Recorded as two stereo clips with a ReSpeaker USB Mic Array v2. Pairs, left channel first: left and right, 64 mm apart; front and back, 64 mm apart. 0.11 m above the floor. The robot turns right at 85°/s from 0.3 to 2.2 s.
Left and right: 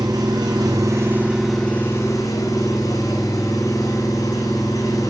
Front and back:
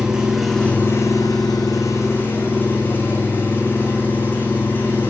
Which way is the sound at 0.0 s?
100° right.